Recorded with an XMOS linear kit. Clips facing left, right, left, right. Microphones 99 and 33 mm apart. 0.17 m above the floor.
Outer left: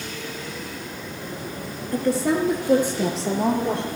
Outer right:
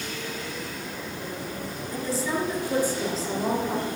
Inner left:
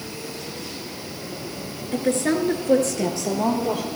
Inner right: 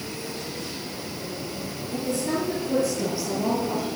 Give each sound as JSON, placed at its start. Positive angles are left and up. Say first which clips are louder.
{"t": 1.9, "sound": "a woman speaking", "louder": "outer left 7 dB, inner left 5 dB", "side_deg": 60, "distance_m": 3.0}